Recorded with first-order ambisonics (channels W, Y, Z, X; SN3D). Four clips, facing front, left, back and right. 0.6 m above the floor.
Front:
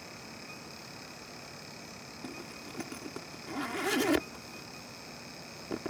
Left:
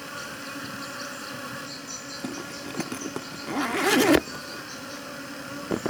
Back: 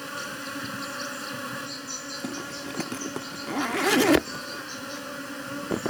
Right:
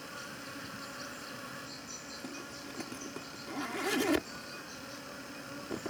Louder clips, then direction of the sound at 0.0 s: Left 8 dB, back 12 dB; 155° left.